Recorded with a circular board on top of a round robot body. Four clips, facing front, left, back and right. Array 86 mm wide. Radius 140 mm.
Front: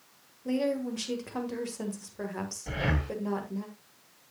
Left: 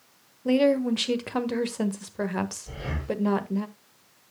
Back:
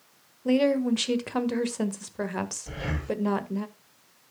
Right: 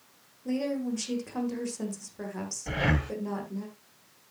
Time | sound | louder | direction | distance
0.5 | a woman speaking | left 9 dB, back 7 dB | 130° left | 1.6 m
2.7 | breathing | right 4 dB, front 1 dB | 70° right | 1.5 m